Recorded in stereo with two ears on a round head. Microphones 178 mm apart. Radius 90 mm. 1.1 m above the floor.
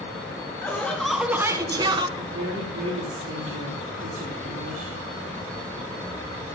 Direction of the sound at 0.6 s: 10° left (ahead or behind).